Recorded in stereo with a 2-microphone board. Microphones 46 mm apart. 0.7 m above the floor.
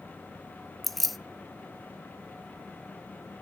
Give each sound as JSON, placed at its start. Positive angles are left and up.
{"t": 0.8, "sound": "keys jangling", "side_deg": 0, "distance_m": 0.5}